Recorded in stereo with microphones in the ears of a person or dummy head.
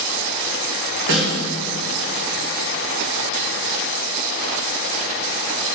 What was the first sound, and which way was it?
A snare drum, 65° right (ahead or behind).